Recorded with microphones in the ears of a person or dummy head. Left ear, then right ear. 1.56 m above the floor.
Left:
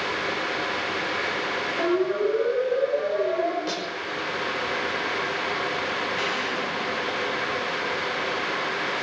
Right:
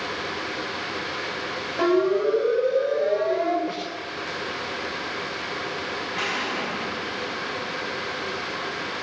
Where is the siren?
20° right (ahead or behind), 8 m; by 3.6 s 15° right (ahead or behind), 8.5 m.